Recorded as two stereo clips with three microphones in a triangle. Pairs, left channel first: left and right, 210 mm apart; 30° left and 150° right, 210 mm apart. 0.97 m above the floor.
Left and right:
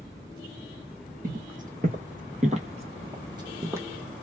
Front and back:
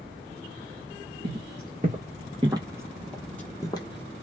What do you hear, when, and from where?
1.2 s footsteps: 125° right, 1.5 m; by 4.2 s 10° right, 1.2 m